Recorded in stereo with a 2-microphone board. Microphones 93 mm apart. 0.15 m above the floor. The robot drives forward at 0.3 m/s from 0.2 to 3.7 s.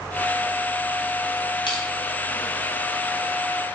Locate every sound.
1.7 s crushing: 60° left (ahead or behind), 1.2 m